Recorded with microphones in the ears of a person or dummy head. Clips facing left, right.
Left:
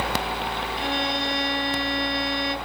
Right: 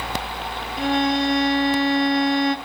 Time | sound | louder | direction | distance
0.8 | a violin | right 9 dB | 65° right (ahead or behind) | 0.8 m